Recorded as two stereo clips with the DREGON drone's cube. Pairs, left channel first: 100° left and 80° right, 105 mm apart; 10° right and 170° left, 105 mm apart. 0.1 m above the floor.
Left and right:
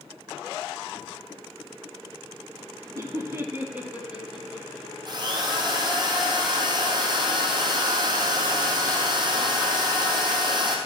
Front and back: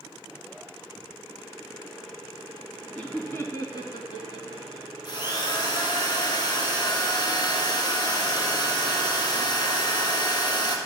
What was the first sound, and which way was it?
Laughter, 90° right.